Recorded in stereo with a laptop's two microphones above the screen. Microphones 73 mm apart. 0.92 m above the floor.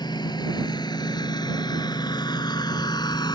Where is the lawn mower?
75° left (ahead or behind).